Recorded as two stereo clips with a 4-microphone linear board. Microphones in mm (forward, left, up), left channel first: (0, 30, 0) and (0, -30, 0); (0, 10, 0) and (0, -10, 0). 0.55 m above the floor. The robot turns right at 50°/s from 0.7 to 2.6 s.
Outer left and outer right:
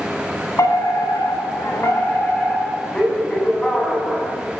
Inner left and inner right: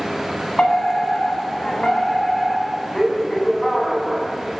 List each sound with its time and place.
0.6 s a fire alarm: 70° left, 8 m; by 4.3 s 165° left, 8 m